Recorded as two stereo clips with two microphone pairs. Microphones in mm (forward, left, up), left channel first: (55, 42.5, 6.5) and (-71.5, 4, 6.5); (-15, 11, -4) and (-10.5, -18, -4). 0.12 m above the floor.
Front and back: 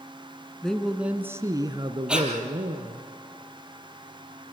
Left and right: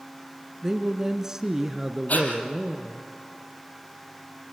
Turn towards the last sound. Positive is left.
turn(degrees=115)